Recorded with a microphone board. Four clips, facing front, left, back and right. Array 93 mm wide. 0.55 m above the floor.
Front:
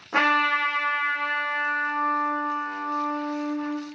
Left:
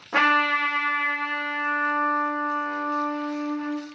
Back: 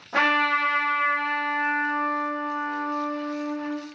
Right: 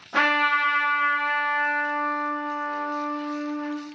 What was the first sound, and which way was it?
A trumpet, 60° left.